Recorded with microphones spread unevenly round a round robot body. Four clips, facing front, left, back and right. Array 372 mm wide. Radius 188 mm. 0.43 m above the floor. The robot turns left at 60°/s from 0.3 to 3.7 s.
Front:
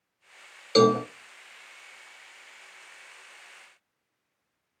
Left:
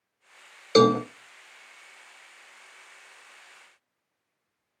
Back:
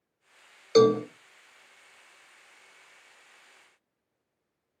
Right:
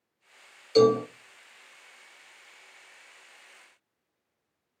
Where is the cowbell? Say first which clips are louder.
Left 1 dB, even; 75° left, 0.7 m; by 1.0 s 60° left, 0.7 m.